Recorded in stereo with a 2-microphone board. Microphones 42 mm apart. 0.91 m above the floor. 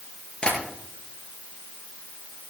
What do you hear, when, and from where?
0.4 s tapping: 25° left (ahead or behind), 6.5 m